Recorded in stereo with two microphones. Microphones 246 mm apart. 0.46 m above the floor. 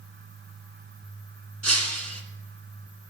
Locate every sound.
1.6 s breaking glass: 85° right, 2 m